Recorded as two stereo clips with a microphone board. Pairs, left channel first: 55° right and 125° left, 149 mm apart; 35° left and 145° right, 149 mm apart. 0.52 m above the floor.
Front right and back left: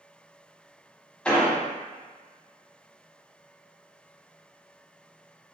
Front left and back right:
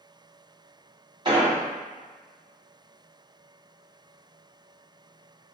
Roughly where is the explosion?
Behind right.